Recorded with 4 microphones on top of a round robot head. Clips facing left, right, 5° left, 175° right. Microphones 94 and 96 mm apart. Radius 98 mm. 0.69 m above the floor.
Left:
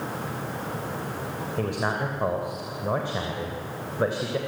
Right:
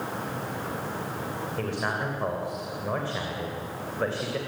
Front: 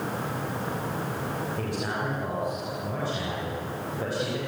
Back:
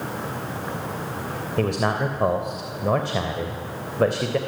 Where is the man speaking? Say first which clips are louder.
Left 3 dB, back 7 dB; 165° left, 3 m.